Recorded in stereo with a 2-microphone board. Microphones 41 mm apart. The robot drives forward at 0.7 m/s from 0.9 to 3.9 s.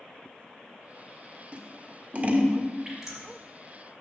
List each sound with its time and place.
1.5 s scissors: 35° right (ahead or behind), 1.3 m
2.9 s dripping: 15° right (ahead or behind), 4.5 m; by 3.3 s 20° right (ahead or behind), 4 m